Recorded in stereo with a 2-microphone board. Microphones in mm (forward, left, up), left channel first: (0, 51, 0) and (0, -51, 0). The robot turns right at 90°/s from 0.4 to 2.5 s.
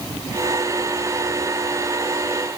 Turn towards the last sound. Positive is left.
No sound to turn to.